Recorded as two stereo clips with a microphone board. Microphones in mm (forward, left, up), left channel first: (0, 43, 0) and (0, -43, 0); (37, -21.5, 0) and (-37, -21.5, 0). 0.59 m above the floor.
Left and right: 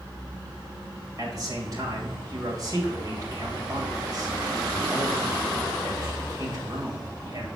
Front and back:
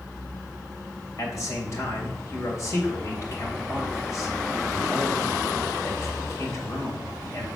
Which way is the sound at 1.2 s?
45° right.